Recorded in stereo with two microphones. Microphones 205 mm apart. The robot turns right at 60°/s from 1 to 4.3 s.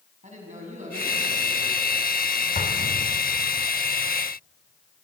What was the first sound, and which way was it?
A man speaking, 145° right.